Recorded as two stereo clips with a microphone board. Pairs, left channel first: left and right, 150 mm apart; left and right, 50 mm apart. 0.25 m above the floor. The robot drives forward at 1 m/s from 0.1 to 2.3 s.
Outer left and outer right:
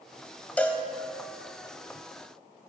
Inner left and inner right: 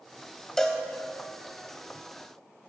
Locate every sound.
0.6 s a cowbell: 10° left (ahead or behind), 0.9 m; by 0.8 s 5° left (ahead or behind), 1.0 m